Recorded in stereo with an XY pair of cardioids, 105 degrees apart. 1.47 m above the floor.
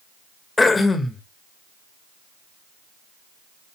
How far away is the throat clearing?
About 1.8 m.